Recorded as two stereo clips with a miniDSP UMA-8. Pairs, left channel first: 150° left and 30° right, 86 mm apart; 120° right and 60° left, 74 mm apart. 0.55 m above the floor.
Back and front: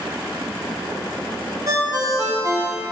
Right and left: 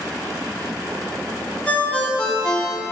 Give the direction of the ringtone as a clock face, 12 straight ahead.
2 o'clock.